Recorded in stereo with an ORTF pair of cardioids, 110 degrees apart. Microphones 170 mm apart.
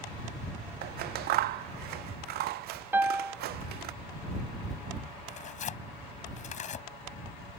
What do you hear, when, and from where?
0.8 s scissors: 70° right
2.9 s a piano: 10° right
5.3 s tearing paper: 45° left